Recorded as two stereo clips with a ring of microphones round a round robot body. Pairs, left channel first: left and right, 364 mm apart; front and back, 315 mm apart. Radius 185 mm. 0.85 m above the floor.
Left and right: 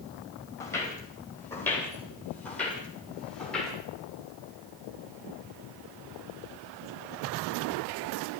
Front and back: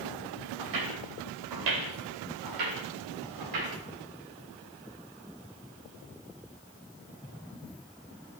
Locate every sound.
0.6 s footsteps: 170° left, 8 m; by 3.8 s straight behind, 9.5 m